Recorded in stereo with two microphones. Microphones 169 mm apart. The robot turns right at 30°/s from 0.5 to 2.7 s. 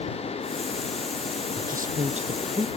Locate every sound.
1.6 s a woman speaking: 60° right; by 2.7 s 30° right